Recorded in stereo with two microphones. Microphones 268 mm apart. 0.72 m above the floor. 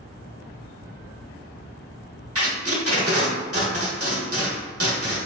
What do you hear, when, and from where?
2.4 s tape being pulled: 60° right (ahead or behind), 0.9 m